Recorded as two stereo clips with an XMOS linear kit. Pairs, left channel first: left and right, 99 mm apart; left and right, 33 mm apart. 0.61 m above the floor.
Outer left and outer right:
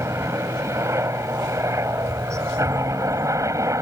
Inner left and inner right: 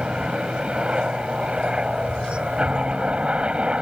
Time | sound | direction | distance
0.0 | a helicopter | 30° right (ahead or behind) | ?